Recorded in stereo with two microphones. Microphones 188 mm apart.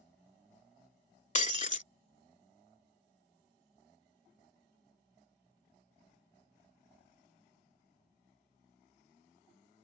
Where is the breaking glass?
40° left (ahead or behind).